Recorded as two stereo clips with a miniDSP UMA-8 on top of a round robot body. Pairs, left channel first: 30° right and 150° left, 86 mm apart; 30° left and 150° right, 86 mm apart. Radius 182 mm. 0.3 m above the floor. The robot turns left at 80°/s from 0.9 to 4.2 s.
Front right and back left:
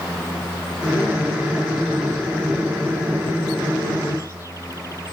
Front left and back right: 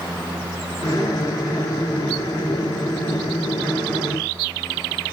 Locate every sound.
Only background noise.